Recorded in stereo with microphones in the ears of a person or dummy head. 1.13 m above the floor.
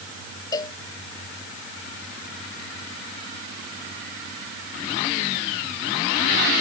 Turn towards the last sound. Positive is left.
turn(degrees=25)  # may be behind; listen again after turning